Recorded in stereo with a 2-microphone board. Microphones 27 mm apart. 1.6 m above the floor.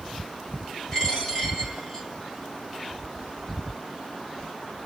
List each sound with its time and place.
0.9 s a dropped coin: 20° left (ahead or behind), 1.8 m